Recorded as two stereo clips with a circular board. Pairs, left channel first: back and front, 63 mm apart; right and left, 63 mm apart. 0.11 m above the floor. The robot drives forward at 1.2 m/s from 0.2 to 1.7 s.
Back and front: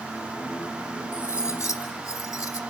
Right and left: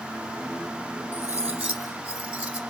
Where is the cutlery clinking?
150° left, 1.9 m; by 2.6 s 160° left, 2.5 m.